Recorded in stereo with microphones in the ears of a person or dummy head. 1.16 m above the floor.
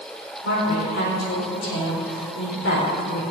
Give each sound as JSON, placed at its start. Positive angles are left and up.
{"t": 0.4, "sound": "a woman speaking", "side_deg": 75, "distance_m": 4.0}